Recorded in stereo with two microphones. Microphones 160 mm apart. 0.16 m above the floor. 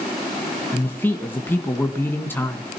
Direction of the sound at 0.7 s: 15° left (ahead or behind).